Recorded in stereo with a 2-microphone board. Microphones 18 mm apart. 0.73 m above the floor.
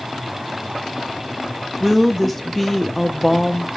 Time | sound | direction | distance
1.8 | a woman speaking | 5° left (ahead or behind) | 0.5 m